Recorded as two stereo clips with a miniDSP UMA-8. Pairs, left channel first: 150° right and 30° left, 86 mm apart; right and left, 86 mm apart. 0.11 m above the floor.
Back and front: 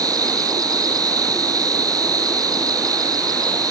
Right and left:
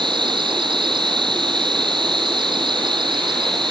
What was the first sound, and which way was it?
An insect, 70° left.